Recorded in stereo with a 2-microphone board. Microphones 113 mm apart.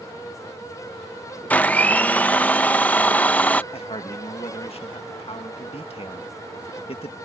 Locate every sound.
1.5 s a blender: 15° left (ahead or behind)
3.7 s a man speaking: 60° left (ahead or behind)